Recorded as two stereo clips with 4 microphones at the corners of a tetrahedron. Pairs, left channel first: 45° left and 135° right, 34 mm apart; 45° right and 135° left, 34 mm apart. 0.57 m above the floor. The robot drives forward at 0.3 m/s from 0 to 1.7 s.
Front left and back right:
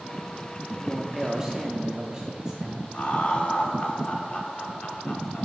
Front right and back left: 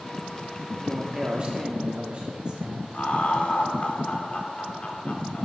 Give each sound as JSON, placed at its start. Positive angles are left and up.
{"t": 0.8, "sound": "a man speaking", "azimuth_deg": 150, "distance_m": 0.6}
{"t": 2.9, "sound": "laughter", "azimuth_deg": 0, "distance_m": 1.1}